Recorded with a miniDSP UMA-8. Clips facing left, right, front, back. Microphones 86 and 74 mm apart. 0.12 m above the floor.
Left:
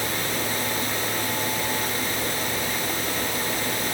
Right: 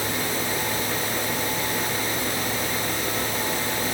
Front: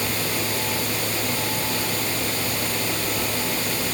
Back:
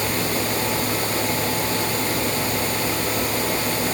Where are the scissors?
No scissors in this recording.